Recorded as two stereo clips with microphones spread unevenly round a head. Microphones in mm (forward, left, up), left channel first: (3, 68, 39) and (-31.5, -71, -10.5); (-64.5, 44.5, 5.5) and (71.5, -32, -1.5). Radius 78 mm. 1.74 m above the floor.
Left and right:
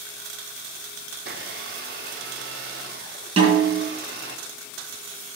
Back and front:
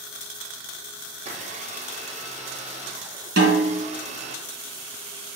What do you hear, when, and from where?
1.1 s a blender: 70° right, 1.1 m
3.4 s a snare drum: 40° right, 3.5 m